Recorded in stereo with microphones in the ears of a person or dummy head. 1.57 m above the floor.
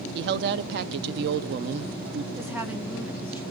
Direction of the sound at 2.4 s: 10° right (ahead or behind).